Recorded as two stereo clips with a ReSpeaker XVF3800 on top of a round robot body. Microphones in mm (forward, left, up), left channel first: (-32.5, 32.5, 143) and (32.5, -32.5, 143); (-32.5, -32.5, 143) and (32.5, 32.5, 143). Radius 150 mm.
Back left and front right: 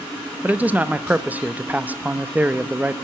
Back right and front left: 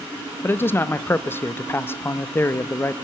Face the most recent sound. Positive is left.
turn(degrees=-100)